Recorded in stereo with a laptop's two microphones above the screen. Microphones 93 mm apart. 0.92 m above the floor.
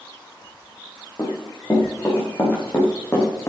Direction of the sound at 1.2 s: 35° left (ahead or behind).